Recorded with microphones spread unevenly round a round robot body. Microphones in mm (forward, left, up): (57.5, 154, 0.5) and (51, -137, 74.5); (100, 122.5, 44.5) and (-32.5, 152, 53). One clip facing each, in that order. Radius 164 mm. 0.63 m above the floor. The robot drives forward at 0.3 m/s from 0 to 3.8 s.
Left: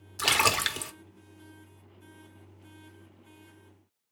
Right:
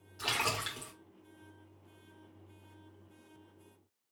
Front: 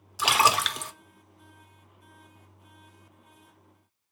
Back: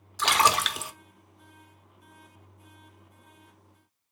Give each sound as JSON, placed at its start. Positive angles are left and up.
{"t": 0.2, "sound": "a splash", "azimuth_deg": 70, "distance_m": 0.8}